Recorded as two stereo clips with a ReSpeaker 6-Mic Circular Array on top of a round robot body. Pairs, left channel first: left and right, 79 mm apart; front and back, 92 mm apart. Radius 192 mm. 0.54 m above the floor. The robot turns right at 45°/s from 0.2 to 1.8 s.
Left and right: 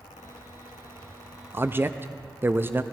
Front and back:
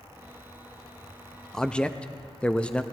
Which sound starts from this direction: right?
A man speaking, at 1.5 s.